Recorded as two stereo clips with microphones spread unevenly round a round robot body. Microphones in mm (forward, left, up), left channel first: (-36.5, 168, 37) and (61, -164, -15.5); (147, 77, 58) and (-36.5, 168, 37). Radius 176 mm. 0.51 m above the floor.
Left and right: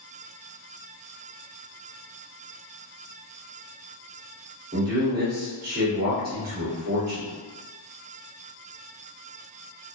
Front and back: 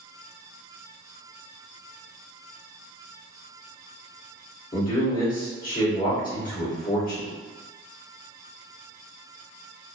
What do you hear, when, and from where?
4.7 s a man speaking: 45° right, 1.6 m